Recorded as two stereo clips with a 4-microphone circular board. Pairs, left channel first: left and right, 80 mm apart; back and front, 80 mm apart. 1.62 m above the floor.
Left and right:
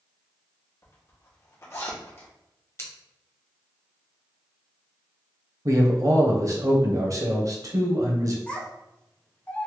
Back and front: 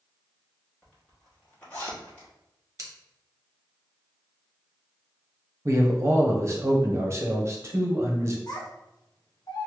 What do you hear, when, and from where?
0.8 s a zipper: 120° left, 1.2 m
2.8 s scissors: 40° left, 0.8 m
5.7 s a man speaking: 50° right, 0.7 m
8.5 s a child speaking: 160° left, 0.9 m